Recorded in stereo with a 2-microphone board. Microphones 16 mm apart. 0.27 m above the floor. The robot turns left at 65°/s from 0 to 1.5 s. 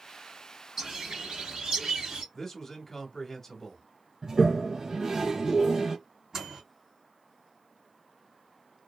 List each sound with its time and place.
0.8 s a bird: 30° right, 1.4 m; by 2.2 s 80° right, 1.4 m
2.3 s a man speaking: 30° left (ahead or behind), 1.2 m
4.2 s a toilet flushing: 35° right (ahead or behind), 0.8 m
6.3 s a microwave: 50° right (ahead or behind), 2 m